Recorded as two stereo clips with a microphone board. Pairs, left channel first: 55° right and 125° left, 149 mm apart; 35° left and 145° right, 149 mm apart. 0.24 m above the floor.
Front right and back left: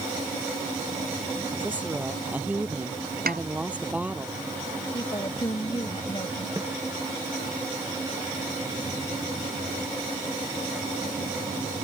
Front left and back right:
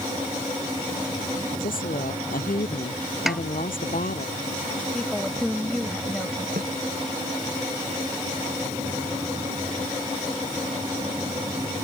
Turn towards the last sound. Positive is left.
turn(degrees=-165)